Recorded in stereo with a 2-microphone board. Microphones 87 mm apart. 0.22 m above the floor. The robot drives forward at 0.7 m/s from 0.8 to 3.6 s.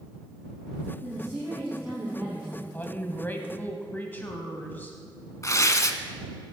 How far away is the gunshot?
I don't hear a gunshot.